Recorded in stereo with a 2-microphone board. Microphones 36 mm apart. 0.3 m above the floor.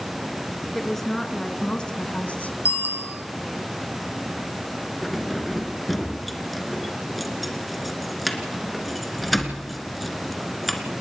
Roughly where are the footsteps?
No footsteps in this recording.